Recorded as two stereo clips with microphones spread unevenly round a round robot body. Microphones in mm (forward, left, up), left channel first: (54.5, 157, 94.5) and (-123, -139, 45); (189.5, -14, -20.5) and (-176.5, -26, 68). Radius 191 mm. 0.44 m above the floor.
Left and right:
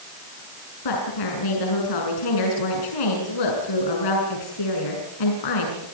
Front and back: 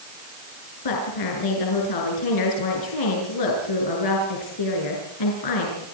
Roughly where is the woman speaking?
Ahead left.